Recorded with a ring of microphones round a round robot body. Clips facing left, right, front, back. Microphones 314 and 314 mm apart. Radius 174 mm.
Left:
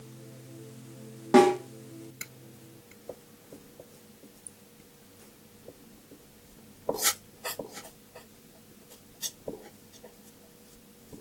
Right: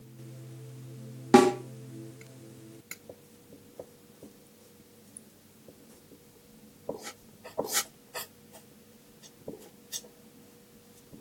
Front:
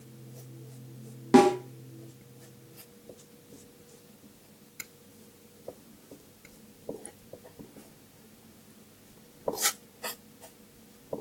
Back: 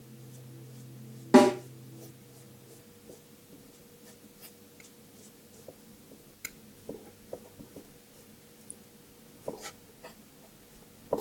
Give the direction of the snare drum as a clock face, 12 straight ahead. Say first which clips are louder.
Even, even; 2 o'clock.